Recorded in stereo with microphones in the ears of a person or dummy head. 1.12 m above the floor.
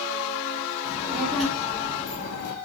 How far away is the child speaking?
About 0.9 m.